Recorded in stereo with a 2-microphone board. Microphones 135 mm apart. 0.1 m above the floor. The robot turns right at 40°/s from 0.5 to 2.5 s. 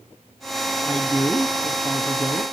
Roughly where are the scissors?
I don't hear scissors.